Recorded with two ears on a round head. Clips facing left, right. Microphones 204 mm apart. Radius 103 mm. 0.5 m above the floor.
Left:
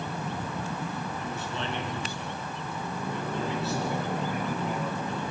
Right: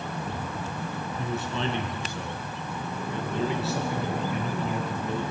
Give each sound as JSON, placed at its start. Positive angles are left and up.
{"t": 1.2, "sound": "a man speaking", "side_deg": -65, "distance_m": 4.5}